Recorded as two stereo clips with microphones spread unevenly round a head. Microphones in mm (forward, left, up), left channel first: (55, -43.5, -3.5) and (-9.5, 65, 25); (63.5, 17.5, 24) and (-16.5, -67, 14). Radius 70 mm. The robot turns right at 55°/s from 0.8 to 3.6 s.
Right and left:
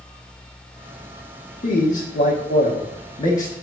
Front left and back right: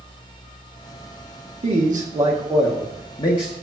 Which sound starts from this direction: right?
A man speaking, at 1.6 s.